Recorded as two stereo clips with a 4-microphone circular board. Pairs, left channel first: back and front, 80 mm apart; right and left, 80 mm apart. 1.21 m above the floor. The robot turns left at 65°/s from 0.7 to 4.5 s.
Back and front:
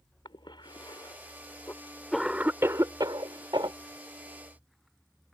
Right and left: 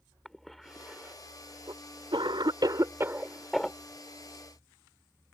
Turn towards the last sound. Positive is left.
turn(degrees=-65)